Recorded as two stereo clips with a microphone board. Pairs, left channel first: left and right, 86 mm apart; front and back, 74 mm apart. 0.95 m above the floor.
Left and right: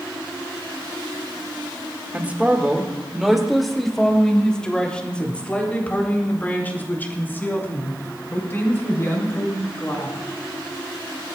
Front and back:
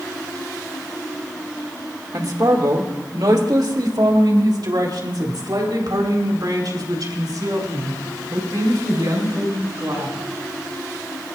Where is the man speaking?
155° right, 1.9 m; by 10.2 s 150° left, 6 m.